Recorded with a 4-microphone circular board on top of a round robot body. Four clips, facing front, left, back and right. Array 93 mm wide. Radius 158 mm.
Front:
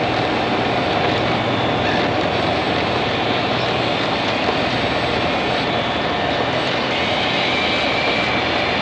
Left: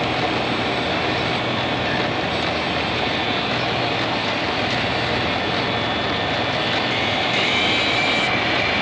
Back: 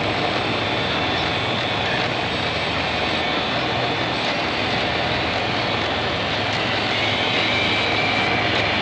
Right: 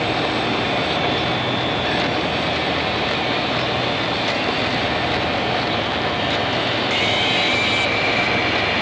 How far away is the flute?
I don't hear a flute.